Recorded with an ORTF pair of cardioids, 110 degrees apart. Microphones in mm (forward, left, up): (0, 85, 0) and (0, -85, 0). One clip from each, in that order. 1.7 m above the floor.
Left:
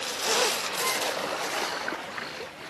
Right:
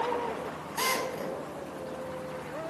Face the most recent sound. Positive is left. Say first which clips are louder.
# left 2 dB
turn(degrees=-35)